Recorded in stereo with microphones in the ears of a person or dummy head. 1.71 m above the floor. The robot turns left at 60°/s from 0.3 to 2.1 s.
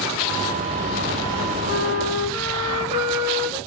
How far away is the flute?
About 1.5 m.